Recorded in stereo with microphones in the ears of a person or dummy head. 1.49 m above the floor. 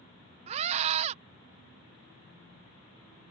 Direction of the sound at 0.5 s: 45° right (ahead or behind).